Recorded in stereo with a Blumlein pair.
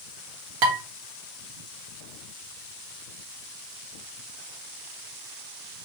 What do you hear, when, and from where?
0.6 s dishes clattering: 45° right, 1.1 m